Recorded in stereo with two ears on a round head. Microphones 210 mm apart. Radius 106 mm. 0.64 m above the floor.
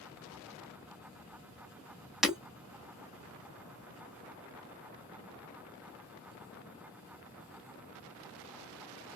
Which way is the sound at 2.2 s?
Centre (ahead or behind).